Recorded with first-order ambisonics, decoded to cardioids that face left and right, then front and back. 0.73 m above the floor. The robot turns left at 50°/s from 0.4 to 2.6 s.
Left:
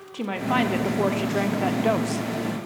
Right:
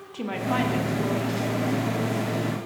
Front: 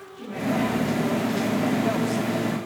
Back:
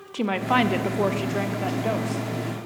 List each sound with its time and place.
0.1 s a woman speaking: 170° left, 1.1 m; by 2.6 s 60° left, 1.1 m